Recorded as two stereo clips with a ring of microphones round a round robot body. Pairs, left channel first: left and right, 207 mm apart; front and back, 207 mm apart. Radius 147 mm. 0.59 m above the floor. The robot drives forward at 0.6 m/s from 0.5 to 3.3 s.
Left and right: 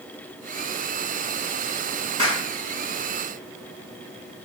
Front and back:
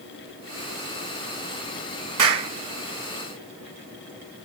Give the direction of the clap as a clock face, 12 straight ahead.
5 o'clock.